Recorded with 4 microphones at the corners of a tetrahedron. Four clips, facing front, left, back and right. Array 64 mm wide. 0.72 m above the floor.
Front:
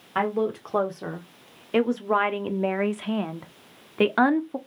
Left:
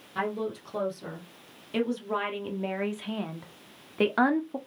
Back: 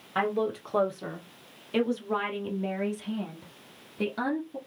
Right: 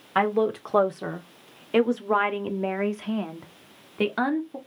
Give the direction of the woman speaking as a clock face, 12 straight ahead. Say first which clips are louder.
Right 9 dB, front 3 dB; 3 o'clock.